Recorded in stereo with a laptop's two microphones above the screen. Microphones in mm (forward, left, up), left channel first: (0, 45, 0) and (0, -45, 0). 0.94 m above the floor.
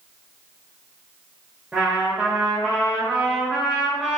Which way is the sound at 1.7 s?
10° right (ahead or behind).